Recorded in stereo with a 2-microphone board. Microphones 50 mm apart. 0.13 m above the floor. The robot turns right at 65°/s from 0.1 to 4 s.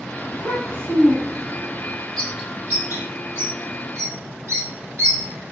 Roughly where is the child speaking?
Left.